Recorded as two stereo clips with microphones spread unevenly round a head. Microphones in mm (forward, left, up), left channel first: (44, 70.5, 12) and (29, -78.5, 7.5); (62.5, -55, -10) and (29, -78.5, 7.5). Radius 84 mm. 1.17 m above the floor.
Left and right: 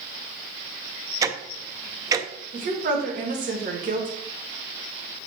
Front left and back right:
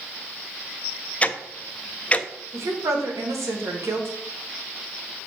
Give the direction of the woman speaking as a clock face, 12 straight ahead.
5 o'clock.